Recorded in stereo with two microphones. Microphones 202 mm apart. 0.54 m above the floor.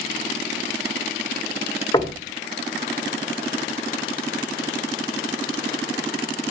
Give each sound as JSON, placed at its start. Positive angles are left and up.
{"t": 1.9, "sound": "knocking", "side_deg": 20, "distance_m": 1.5}